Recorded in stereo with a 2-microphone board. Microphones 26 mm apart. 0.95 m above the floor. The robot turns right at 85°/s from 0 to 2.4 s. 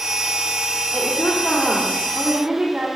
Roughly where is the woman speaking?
Left.